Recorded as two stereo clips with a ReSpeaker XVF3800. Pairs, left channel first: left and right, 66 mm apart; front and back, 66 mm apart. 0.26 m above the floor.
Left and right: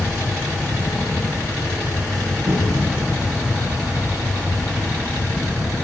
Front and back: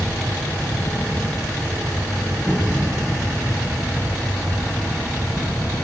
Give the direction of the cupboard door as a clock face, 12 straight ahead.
3 o'clock.